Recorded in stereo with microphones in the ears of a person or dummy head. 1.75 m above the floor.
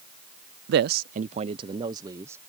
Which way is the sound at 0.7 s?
65° right (ahead or behind).